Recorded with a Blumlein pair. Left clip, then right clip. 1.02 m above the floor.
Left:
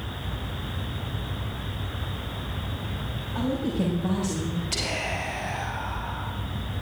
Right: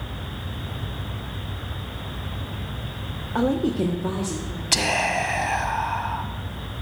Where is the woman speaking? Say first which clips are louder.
Right 6 dB; 50° right, 0.7 m; by 4.6 s 10° left, 2 m.